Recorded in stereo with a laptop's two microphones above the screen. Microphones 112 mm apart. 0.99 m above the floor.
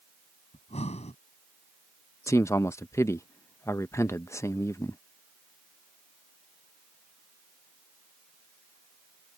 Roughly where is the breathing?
Left.